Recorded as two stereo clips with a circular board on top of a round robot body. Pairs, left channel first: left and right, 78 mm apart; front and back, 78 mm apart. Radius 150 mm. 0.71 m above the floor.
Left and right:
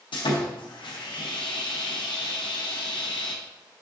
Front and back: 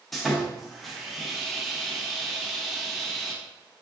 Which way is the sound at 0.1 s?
90° left.